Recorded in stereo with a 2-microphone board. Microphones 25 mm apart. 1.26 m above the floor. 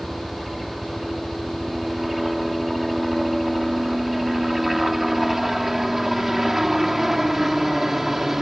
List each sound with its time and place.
0.0 s a helicopter: 5° right (ahead or behind); by 8.4 s 10° right (ahead or behind)